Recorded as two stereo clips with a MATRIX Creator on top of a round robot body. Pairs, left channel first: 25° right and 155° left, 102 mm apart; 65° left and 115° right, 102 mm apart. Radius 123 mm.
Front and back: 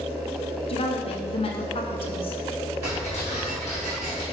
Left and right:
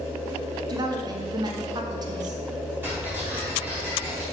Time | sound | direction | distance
0.7 | a woman speaking | 60° right | 1.2 m
2.8 | ticking | 40° right | 3.5 m